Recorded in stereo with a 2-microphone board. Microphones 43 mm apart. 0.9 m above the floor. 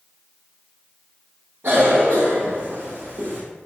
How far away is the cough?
About 1.7 m.